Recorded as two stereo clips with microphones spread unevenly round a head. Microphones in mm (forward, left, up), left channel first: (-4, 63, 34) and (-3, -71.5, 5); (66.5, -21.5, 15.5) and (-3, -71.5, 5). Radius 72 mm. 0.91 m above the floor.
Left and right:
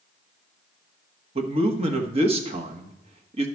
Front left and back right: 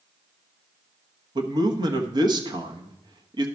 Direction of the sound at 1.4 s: 120° right.